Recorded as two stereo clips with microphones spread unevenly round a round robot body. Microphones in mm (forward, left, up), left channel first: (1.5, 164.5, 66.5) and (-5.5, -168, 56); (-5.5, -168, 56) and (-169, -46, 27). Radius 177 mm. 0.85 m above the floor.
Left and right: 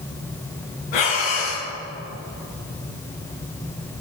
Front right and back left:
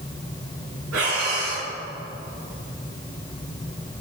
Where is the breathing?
95° left, 2 m.